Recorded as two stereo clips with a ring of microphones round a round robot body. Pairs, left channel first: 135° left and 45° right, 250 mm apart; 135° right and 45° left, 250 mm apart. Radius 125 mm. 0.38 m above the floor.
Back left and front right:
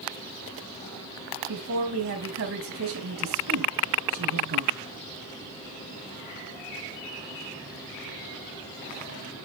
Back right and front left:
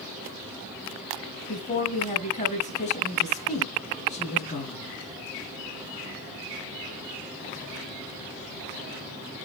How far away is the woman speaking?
About 2.5 m.